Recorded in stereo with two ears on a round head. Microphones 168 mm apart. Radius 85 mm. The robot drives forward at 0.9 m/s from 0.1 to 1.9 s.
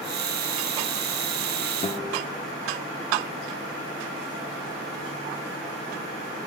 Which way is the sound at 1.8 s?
35° left (ahead or behind).